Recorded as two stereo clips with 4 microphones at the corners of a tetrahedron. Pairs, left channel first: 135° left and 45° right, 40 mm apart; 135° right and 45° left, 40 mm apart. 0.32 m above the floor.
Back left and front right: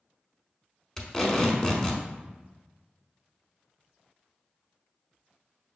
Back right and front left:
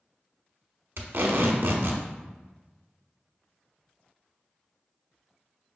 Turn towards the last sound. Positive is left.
turn(degrees=60)